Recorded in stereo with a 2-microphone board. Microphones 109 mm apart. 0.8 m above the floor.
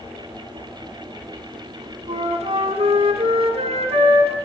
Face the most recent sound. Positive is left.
turn(degrees=-70)  # may be behind; listen again after turning